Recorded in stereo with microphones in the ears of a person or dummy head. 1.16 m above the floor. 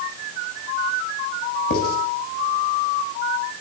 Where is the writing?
55° left (ahead or behind), 8.5 m.